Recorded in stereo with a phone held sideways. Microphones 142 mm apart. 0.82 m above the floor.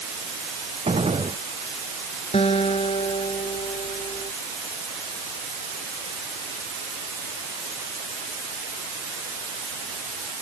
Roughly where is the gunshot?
Right.